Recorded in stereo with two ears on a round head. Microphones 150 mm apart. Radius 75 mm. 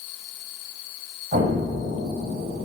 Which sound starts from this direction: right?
An explosion, at 1.3 s.